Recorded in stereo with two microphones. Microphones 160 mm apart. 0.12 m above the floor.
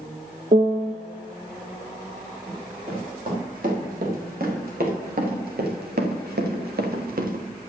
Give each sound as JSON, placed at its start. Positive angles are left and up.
{"t": 0.5, "sound": "a piano", "side_deg": -45, "distance_m": 0.7}
{"t": 2.5, "sound": "running footsteps", "side_deg": -60, "distance_m": 6.0}